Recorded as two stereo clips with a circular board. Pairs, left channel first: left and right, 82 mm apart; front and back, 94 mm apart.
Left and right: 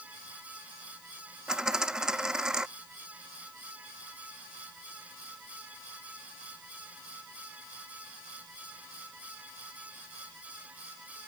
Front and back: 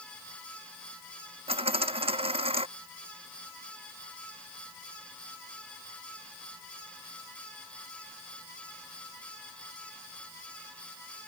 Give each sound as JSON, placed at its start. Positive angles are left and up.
{"t": 1.5, "sound": "a dropped coin", "azimuth_deg": -175}